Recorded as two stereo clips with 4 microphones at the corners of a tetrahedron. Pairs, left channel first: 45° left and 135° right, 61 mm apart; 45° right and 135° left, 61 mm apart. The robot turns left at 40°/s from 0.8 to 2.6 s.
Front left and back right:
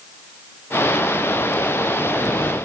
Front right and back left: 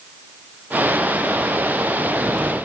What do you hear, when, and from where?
Only background noise.